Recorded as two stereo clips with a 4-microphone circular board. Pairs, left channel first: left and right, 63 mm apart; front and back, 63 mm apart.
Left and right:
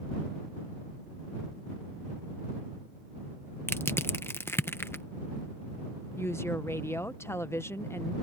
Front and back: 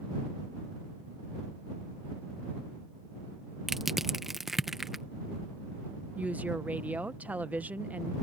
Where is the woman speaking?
120° left.